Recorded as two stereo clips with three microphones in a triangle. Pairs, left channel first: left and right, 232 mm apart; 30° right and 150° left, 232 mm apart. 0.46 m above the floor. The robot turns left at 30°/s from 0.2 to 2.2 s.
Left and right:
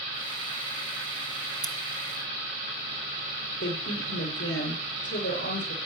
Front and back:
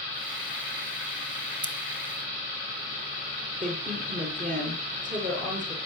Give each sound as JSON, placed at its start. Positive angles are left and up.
{"t": 1.6, "sound": "scissors", "azimuth_deg": 160, "distance_m": 1.6}
{"t": 3.6, "sound": "a woman speaking", "azimuth_deg": 95, "distance_m": 9.5}